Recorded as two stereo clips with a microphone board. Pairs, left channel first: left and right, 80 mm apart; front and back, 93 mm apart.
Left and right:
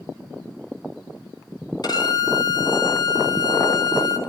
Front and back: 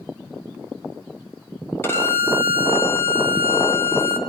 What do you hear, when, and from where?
1.8 s a violin: 60° left, 1.5 m